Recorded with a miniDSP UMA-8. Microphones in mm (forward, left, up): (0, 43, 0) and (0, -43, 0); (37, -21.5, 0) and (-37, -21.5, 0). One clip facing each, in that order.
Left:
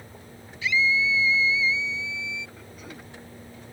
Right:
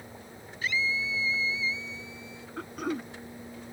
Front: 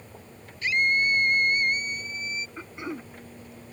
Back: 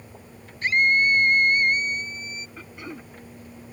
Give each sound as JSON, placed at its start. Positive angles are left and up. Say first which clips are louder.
{"t": 0.6, "sound": "a scream", "louder": "left 6 dB, back 4 dB", "azimuth_deg": -135}
{"t": 2.6, "sound": "throat clearing", "louder": "right 10 dB, front 3 dB", "azimuth_deg": -70}